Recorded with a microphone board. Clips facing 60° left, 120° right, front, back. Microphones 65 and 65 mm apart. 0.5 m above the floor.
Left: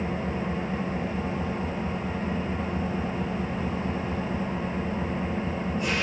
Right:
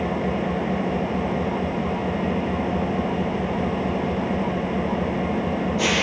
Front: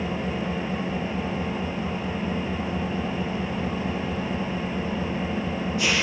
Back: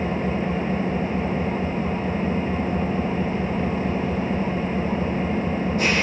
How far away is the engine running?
About 3.5 m.